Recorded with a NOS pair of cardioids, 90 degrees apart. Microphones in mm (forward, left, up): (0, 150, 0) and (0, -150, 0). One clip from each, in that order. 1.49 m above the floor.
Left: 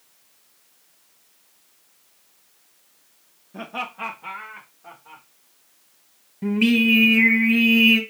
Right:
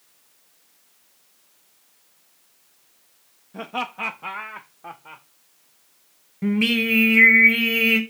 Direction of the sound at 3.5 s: Straight ahead.